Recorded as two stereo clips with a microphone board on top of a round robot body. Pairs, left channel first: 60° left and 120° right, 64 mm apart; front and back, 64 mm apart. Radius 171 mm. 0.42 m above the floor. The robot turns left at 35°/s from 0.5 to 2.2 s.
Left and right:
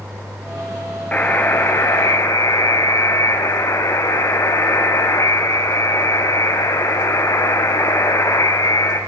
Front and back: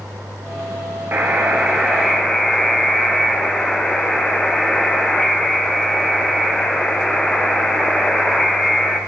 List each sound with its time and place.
1.1 s a buzzer: 125° left, 4.5 m; by 9.0 s 85° left, 4.5 m